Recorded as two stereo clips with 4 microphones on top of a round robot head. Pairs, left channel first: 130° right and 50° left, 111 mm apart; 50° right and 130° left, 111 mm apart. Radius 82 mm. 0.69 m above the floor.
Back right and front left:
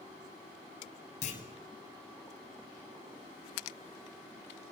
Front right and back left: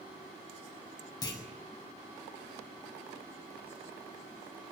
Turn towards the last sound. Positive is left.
turn(degrees=-110)